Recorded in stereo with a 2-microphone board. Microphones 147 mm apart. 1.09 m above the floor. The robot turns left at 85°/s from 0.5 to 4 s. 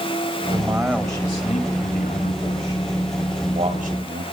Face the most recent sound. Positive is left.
turn(degrees=-70)